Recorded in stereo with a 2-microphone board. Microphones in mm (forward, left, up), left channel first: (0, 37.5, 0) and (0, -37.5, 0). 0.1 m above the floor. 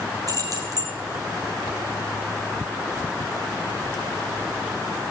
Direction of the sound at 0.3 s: 50° right (ahead or behind).